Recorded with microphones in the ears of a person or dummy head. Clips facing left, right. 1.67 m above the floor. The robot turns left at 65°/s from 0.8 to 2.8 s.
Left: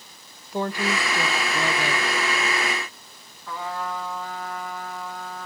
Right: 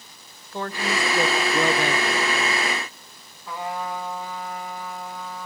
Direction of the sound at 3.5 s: 15° right (ahead or behind).